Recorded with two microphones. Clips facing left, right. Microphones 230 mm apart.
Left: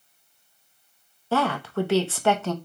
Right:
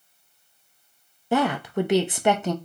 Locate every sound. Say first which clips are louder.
1.3 s a woman speaking: right 2 dB; 15° right (ahead or behind), 0.7 m